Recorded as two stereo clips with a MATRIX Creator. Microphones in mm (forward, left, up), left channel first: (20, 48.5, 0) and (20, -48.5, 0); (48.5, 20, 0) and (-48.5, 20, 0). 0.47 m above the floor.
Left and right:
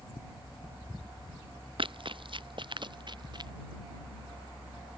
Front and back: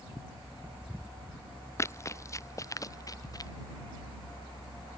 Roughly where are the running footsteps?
Ahead right.